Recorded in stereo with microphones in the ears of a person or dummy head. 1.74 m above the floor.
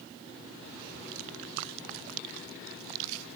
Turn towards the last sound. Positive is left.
No sound to turn to.